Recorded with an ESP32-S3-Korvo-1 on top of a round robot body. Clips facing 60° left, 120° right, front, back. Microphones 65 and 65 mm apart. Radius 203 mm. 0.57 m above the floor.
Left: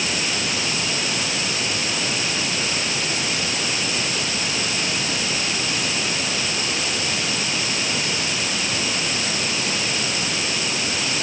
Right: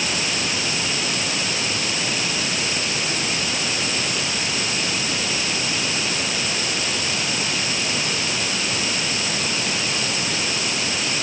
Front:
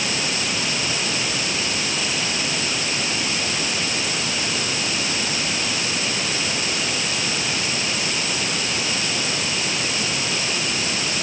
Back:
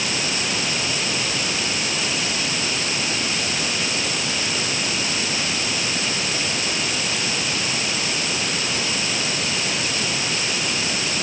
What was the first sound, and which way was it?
Only background noise.